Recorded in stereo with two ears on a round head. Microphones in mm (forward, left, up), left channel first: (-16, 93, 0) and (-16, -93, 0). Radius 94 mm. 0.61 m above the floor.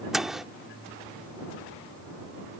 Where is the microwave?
Centre (ahead or behind).